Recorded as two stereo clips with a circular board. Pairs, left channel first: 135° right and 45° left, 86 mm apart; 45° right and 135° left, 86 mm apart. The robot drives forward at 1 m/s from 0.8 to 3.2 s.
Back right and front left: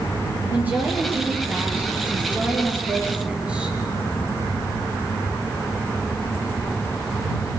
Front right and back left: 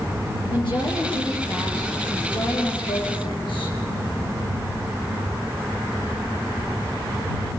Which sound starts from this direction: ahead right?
A woman speaking, at 0.5 s.